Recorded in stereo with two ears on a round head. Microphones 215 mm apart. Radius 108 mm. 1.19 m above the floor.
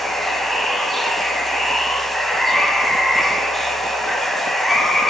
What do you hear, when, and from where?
0.0 s running water: centre (ahead or behind), 1.4 m